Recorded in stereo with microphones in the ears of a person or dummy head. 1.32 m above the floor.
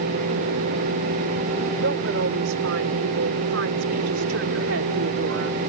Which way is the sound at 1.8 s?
80° right.